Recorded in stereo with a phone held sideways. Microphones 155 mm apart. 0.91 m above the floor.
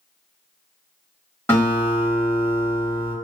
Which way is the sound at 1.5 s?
15° left (ahead or behind).